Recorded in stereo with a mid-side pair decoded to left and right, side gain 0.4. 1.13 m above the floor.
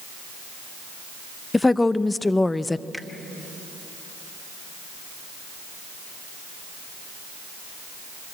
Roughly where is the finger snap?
Ahead.